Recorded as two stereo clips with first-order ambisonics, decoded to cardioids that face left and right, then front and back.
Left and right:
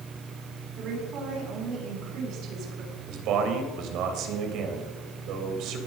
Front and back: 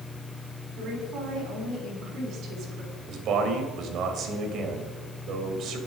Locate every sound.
0.8 s a woman speaking: 135° right, 6 m
3.1 s a man speaking: 130° right, 3 m